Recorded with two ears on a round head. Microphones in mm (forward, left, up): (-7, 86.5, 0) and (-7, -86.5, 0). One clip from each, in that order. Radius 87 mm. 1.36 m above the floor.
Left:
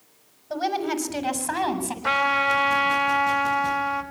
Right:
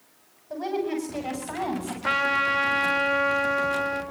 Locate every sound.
0.5 s a woman speaking: 45° left (ahead or behind), 6.5 m; by 1.9 s 50° left (ahead or behind), 8.5 m
2.0 s a trumpet: 5° right (ahead or behind), 3 m